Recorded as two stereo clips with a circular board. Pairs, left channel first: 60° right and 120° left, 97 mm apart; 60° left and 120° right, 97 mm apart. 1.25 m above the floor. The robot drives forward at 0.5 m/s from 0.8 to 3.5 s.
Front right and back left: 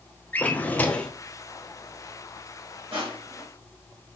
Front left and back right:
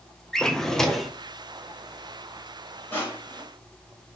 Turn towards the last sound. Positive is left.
turn(degrees=135)